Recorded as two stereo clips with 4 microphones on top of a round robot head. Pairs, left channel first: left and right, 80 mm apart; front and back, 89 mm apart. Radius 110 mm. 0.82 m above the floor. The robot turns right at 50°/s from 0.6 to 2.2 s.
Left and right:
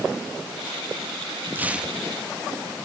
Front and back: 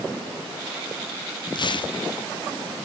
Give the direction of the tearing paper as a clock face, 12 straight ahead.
1 o'clock.